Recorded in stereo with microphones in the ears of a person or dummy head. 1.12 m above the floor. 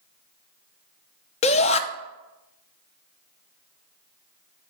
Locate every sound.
1.4 s a shout: 35° left (ahead or behind), 0.5 m